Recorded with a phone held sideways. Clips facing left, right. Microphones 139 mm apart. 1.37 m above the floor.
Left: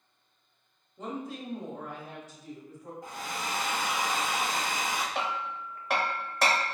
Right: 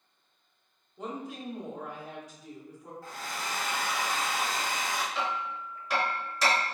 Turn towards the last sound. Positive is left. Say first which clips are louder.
# even
turn(degrees=60)  # may be behind; listen again after turning